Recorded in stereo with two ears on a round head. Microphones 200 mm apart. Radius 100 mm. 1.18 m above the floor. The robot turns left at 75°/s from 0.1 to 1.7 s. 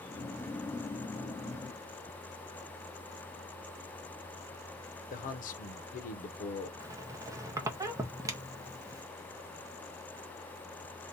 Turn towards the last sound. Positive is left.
turn(degrees=-15)  # may be behind; listen again after turning